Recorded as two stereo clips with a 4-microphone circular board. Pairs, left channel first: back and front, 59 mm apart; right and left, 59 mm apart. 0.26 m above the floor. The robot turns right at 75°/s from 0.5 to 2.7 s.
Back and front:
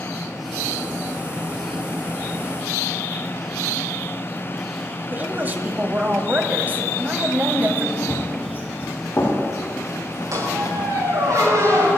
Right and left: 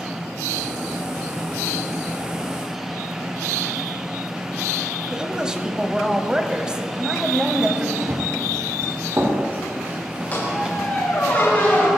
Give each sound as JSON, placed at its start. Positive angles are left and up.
{"t": 5.1, "sound": "a woman speaking", "azimuth_deg": 25, "distance_m": 1.3}
{"t": 8.0, "sound": "running footsteps", "azimuth_deg": 115, "distance_m": 5.0}
{"t": 10.3, "sound": "a squeak", "azimuth_deg": -25, "distance_m": 6.0}